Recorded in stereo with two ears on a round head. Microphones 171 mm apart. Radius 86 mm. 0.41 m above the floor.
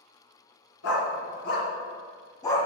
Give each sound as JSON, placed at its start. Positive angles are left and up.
{"t": 0.8, "sound": "a dog barking", "side_deg": 80, "distance_m": 2.0}